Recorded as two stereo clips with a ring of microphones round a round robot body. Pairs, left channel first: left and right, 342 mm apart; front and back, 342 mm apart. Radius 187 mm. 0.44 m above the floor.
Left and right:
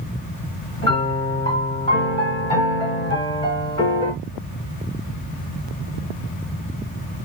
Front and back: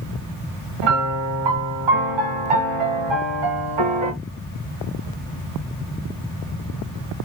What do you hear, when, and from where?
0.8 s a piano: 170° left, 1.8 m